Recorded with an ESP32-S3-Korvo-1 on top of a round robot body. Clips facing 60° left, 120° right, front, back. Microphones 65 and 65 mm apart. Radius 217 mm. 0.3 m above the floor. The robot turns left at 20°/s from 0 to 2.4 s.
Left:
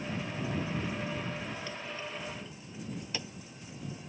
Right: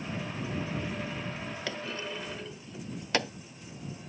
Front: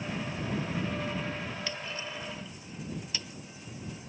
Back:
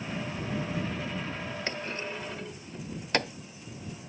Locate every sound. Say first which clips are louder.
1.7 s a clunk: right 3 dB, back 3 dB; 130° right; by 3.3 s 145° right